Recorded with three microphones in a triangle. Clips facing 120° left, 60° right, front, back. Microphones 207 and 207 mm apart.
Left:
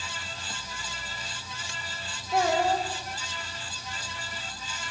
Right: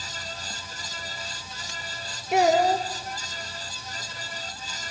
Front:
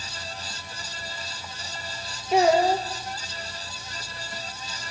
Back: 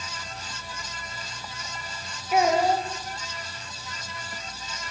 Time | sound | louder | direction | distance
2.3 | a child speaking | right 5 dB, front 2 dB | 65° right | 4 m